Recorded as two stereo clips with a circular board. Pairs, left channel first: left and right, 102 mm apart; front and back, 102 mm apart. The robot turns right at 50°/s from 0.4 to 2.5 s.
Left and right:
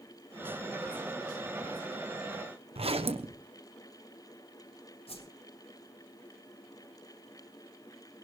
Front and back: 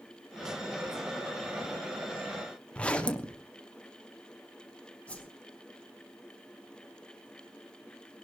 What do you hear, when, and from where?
2.8 s a zipper: 80° right, 1.2 m
5.1 s a whoosh: 80° left, 4.5 m